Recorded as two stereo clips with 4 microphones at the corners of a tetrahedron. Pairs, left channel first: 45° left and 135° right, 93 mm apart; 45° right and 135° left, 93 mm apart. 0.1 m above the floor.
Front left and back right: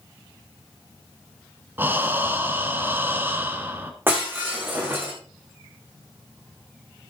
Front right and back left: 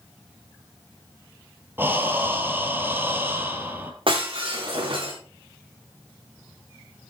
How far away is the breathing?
About 1.5 m.